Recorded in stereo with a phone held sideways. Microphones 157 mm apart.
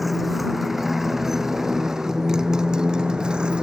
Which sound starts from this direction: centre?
A motorcycle, at 0.0 s.